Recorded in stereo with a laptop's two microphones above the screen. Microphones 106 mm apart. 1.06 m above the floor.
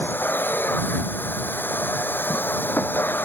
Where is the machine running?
15° left (ahead or behind).